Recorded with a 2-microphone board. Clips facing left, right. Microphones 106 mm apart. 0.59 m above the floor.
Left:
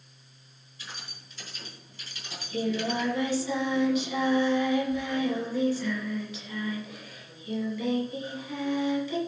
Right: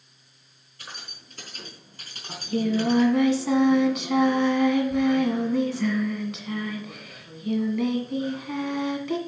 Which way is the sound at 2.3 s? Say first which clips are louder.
Right 5 dB; 75° right (ahead or behind).